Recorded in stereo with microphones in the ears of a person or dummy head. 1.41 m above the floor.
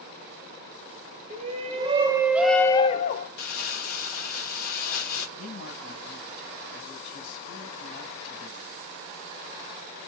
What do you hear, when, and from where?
1.3 s a shout: 50° right (ahead or behind), 1.6 m; by 3.3 s 50° left (ahead or behind), 1.0 m
3.4 s crumpling: 65° left (ahead or behind), 3.5 m
5.4 s a man speaking: 75° left (ahead or behind), 4 m